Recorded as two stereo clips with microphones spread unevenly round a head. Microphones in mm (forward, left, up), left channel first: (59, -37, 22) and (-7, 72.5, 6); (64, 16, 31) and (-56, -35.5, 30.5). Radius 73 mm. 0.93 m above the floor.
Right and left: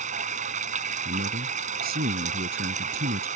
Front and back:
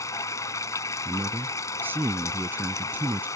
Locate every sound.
0.0 s running water: 95° left
1.1 s a man speaking: 125° left